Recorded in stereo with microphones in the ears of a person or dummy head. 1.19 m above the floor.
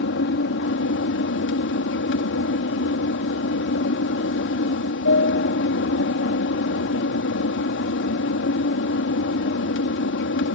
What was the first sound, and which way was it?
An aircraft, 60° left (ahead or behind).